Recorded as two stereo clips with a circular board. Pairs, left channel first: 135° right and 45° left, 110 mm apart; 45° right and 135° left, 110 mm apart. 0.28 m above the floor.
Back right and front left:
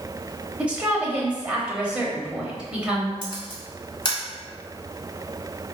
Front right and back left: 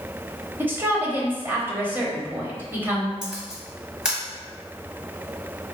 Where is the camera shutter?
145° right, 1.6 m.